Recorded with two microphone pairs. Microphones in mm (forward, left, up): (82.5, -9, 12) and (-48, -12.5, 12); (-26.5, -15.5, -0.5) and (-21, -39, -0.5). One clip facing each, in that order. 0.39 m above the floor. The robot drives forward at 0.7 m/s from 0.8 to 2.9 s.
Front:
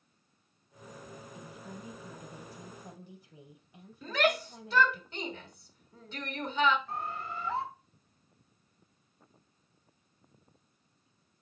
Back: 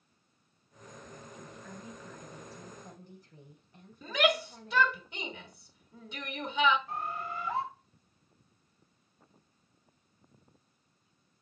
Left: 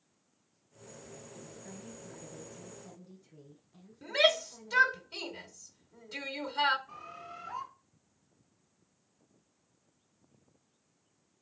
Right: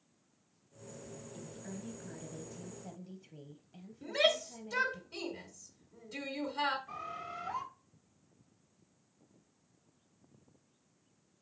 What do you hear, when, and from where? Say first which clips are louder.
1.3 s a woman speaking: front 1 dB, right 4 dB; 60° right, 3.5 m; by 5.0 s 80° right, 3 m
4.0 s a shout: back 1 dB, left 3 dB; 120° left, 1.5 m
6.9 s a bird: back 1 dB, right 4 dB; 105° right, 3.5 m